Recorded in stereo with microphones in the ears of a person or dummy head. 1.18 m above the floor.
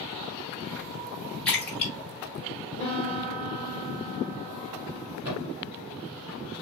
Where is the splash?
Centre (ahead or behind), 1.6 m.